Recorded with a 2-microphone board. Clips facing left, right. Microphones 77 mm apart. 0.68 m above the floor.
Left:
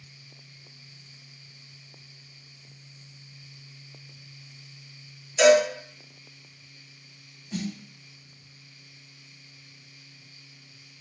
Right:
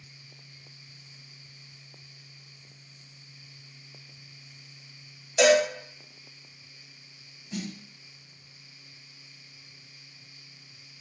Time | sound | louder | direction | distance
5.4 | a cowbell | left 3 dB | 70° right (ahead or behind) | 1.5 m
7.5 | a snare drum | left 3 dB | 5° right (ahead or behind) | 1.0 m